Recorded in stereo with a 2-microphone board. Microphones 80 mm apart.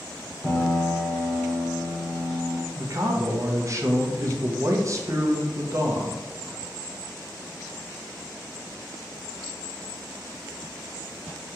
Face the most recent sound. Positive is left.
turn(degrees=-40)  # may be behind; listen again after turning